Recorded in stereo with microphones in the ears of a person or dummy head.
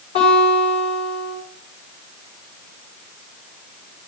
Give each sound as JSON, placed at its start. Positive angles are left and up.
{"t": 0.1, "sound": "a guitar", "side_deg": 40, "distance_m": 8.0}